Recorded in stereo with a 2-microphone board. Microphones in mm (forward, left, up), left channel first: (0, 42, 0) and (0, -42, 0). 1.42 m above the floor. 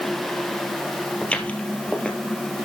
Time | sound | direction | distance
1.2 | footsteps | 15° left (ahead or behind) | 1.9 m